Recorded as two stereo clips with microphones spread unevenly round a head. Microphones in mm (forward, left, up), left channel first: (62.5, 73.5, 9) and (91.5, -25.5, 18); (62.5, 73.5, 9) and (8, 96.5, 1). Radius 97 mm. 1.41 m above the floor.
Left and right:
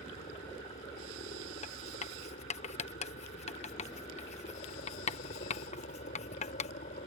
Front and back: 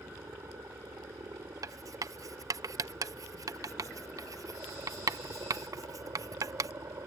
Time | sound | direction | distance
0.0 | a helicopter | 110° left | ?
1.6 | writing | 135° left | ?